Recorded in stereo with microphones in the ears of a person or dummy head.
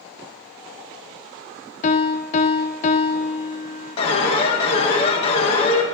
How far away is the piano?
About 0.7 m.